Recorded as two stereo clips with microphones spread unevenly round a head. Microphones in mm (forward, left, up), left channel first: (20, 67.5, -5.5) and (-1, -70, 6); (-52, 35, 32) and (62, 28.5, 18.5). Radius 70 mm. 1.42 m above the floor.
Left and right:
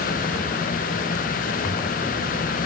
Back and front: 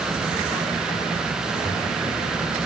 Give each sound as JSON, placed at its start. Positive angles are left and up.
{"t": 1.6, "sound": "a toilet flushing", "azimuth_deg": 45, "distance_m": 5.5}